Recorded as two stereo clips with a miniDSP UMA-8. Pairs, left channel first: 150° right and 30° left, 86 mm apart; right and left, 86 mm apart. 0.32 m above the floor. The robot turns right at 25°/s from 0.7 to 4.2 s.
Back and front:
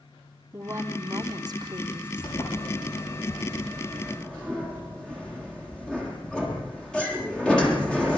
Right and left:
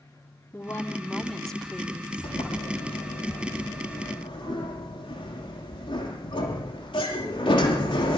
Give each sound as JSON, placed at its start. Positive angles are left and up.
{"t": 0.5, "sound": "a woman speaking", "azimuth_deg": -25, "distance_m": 3.0}
{"t": 2.2, "sound": "a sliding door", "azimuth_deg": -120, "distance_m": 8.0}